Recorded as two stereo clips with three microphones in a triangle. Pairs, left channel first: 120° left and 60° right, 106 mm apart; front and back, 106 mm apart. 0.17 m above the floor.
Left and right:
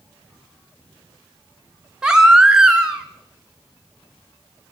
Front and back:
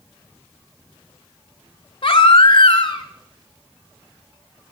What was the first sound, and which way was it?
A baby crying, 20° left.